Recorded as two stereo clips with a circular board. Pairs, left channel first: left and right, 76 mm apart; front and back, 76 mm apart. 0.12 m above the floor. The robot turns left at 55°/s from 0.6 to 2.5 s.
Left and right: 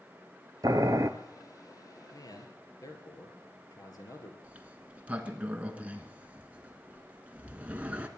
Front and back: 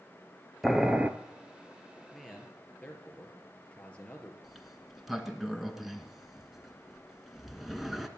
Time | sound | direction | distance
0.6 | boiling | 90° right | 0.7 m
2.1 | a man speaking | 95° left | 2.5 m
4.4 | a sliding door | 100° right | 1.1 m